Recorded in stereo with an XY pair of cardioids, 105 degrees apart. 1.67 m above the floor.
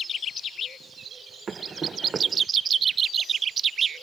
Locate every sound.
1.5 s running footsteps: 40° right